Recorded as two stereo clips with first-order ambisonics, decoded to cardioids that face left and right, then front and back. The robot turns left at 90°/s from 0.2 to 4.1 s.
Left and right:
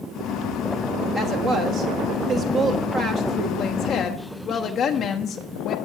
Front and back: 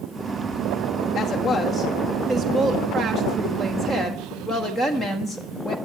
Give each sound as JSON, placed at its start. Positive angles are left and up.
{"t": 1.1, "sound": "a woman speaking", "azimuth_deg": -30, "distance_m": 1.3}